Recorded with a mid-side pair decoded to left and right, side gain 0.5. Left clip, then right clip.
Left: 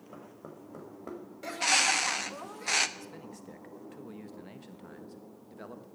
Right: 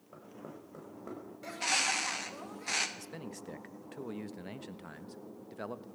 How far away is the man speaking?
About 1.1 m.